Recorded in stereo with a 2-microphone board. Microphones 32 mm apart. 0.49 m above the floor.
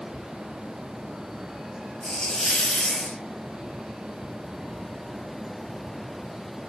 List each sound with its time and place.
2.0 s a hiss: 30° left (ahead or behind), 1.4 m